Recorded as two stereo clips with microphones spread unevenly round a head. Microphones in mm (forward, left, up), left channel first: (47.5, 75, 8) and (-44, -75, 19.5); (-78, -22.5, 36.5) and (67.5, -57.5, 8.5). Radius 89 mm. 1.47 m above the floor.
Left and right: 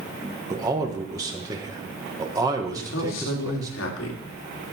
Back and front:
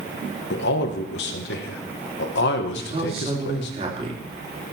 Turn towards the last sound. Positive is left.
turn(degrees=45)